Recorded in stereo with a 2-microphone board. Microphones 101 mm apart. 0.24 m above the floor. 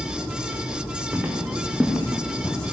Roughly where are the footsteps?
Right.